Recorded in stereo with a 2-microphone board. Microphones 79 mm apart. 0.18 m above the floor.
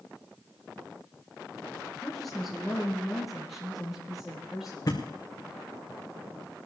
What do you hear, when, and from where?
2.0 s a woman speaking: 5° left (ahead or behind), 2.5 m; by 5.0 s 5° right (ahead or behind), 6 m
4.9 s a thud: 50° left (ahead or behind), 2.5 m